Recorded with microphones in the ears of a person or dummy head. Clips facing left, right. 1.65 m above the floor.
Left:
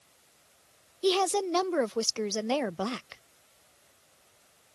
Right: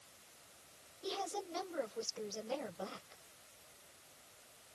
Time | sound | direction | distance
1.0 | a woman speaking | 80° left | ?